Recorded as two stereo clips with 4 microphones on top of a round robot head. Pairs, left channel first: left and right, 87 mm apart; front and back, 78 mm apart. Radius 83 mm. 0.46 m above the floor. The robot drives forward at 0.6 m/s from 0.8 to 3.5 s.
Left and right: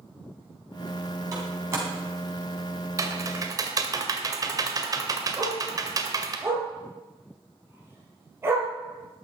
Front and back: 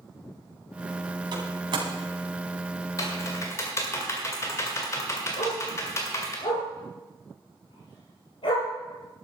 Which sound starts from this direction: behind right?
A door slam, at 1.3 s.